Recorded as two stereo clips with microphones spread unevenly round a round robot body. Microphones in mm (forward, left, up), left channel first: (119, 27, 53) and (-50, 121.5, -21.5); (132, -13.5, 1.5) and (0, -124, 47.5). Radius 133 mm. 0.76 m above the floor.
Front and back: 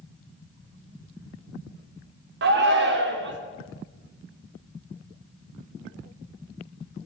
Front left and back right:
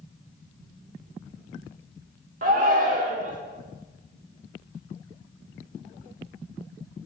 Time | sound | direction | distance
2.4 | a shout | 160° left | 1.5 m